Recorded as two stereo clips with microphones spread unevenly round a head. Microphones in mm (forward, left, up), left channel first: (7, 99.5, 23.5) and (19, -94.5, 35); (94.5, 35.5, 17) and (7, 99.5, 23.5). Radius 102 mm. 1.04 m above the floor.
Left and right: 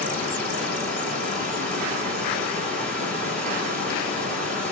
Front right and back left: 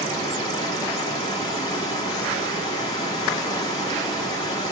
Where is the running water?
10° left, 2.5 m.